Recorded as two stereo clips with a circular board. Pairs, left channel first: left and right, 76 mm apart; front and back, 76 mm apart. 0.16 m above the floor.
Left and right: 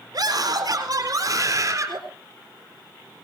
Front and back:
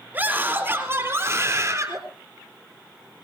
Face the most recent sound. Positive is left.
turn(degrees=-135)